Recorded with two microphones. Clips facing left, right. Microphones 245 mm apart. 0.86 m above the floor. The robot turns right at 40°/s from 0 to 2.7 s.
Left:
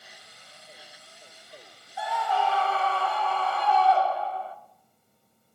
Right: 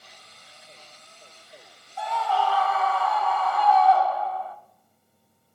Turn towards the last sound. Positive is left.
turn(degrees=30)  # may be behind; listen again after turning